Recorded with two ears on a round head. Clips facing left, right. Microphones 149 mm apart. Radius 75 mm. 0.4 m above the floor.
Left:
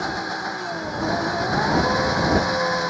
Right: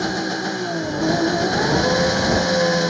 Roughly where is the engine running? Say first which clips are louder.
Right 5 dB; right.